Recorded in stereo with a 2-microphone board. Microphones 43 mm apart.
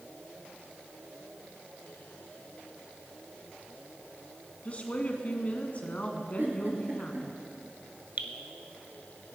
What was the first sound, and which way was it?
A woman speaking, 35° left (ahead or behind).